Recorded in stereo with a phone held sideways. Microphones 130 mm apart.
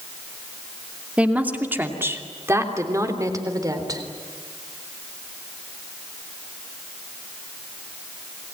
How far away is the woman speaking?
About 2.5 m.